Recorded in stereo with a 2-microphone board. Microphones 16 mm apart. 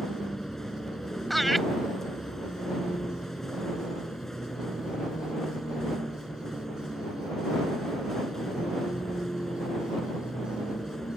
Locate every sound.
0.0 s a vehicle: 20° left (ahead or behind)
1.3 s laughter: centre (ahead or behind)